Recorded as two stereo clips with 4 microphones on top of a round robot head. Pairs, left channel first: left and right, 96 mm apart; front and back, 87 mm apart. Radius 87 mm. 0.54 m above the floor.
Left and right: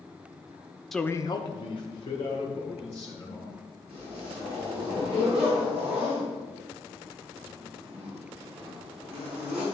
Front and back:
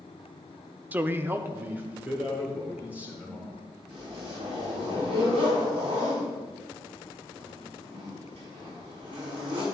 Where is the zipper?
170° right, 5.5 m.